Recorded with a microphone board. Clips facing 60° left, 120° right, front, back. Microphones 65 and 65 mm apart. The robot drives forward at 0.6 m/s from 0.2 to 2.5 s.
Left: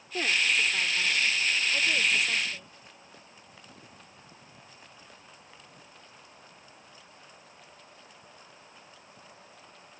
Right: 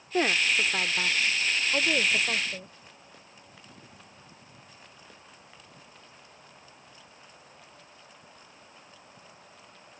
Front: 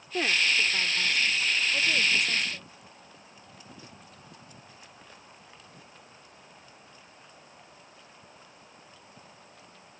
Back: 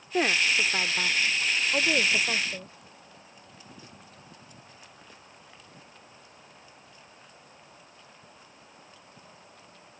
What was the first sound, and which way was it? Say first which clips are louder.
A woman speaking: right 2 dB, back 2 dB; 135° right.